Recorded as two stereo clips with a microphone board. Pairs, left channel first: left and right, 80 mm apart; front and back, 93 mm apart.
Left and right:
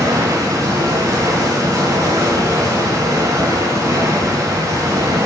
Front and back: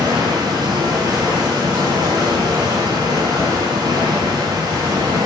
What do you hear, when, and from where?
0.0 s running water: 140° right, 3 m